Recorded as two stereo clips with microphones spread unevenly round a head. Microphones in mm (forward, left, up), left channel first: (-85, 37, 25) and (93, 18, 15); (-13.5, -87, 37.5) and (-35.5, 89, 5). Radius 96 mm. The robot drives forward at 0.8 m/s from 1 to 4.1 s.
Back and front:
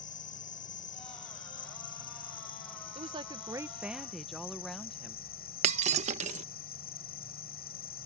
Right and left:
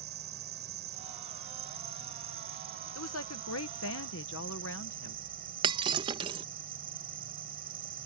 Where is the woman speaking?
65° right; by 5.2 s 95° right.